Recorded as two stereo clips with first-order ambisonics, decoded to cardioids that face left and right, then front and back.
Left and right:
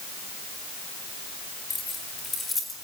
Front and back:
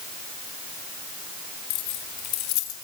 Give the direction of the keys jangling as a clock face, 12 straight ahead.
12 o'clock.